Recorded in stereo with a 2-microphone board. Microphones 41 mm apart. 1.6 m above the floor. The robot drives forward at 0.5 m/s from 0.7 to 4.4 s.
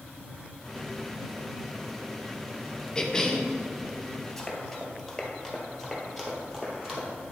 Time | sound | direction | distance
3.0 | a cough | 20° left (ahead or behind) | 0.8 m
4.4 | running footsteps | 20° left (ahead or behind) | 1.6 m